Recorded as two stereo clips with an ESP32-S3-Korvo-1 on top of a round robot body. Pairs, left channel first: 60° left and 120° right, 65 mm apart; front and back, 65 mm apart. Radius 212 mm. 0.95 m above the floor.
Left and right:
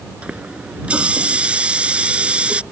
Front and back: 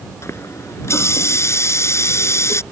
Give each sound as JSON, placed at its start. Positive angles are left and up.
{"t": 0.2, "sound": "a running tap", "azimuth_deg": -45}